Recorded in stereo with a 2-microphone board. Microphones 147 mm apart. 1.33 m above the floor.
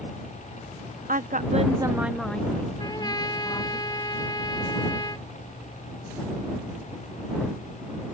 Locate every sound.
1.1 s a woman speaking: 70° right (ahead or behind); by 3.8 s 30° left (ahead or behind)
2.8 s a trumpet: 30° left (ahead or behind)